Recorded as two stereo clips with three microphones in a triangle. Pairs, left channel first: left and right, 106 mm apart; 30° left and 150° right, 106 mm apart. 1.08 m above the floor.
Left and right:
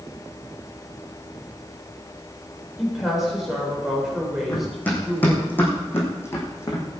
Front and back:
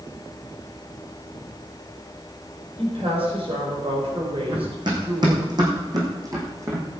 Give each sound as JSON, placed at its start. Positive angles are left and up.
{"t": 2.8, "sound": "a woman speaking", "azimuth_deg": 180, "distance_m": 4.0}
{"t": 4.5, "sound": "running footsteps", "azimuth_deg": 165, "distance_m": 4.5}